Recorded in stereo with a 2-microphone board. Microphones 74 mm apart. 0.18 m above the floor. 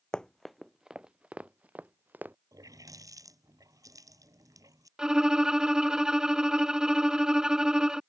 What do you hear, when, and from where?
0.1 s running footsteps: 10° left (ahead or behind); by 2.4 s 25° right (ahead or behind)
2.5 s a running tap: 55° right (ahead or behind)
5.0 s a violin: 10° right (ahead or behind)